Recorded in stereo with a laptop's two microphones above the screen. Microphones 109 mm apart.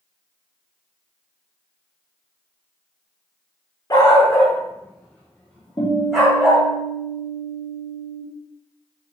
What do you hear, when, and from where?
3.9 s a dog barking: 35° left (ahead or behind), 1.2 m; by 6.6 s 5° right (ahead or behind), 2.0 m
5.8 s a guitar: 45° left (ahead or behind), 2 m